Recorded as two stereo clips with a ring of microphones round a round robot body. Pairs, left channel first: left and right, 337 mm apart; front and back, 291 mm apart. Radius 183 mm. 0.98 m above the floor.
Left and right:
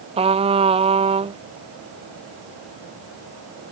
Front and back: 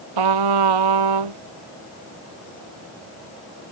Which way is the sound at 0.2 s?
165° right.